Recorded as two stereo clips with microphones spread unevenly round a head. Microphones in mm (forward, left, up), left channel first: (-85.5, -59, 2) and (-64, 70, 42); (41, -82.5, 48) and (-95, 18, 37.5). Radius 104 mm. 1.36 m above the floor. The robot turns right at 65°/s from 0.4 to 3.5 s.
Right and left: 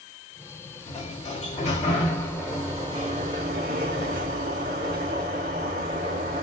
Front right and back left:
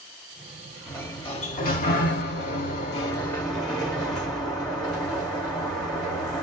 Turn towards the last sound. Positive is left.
turn(degrees=50)